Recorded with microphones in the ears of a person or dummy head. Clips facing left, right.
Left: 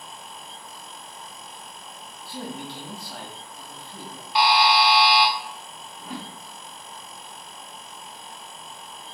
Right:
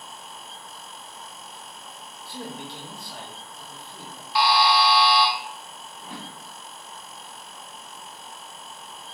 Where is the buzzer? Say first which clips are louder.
Left 1 dB; 20° left (ahead or behind), 0.5 m.